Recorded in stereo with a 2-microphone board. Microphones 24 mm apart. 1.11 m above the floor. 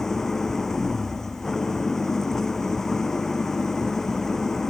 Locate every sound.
0.0 s an engine running: 15° left (ahead or behind)